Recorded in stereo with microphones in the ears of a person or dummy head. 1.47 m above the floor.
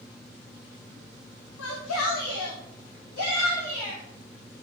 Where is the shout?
80° left, 2.5 m; by 4.0 s 50° left (ahead or behind), 4.5 m.